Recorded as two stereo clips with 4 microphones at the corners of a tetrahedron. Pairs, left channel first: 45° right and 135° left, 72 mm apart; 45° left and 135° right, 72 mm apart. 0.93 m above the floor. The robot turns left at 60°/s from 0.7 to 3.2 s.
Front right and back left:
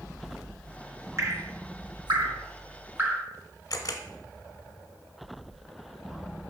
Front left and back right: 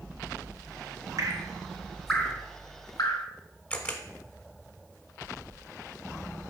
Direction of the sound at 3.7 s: 15° right.